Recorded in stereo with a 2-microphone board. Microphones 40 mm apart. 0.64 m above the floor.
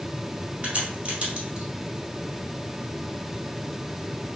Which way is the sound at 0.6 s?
30° right (ahead or behind).